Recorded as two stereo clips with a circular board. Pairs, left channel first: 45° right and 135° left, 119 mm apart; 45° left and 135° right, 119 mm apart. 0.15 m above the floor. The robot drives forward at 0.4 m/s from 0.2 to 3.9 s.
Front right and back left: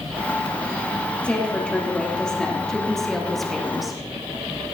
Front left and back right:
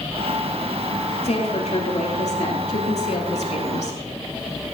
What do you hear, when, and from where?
1.2 s a woman speaking: 35° left, 4 m; by 4.0 s 45° left, 3 m